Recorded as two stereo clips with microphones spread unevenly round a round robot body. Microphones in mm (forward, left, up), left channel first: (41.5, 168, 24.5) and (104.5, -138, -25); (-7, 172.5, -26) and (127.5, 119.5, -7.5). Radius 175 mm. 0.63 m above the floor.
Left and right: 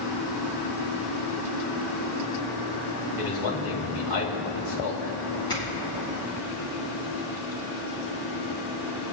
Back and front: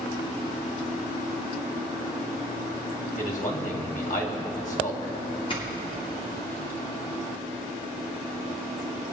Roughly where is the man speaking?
Behind left.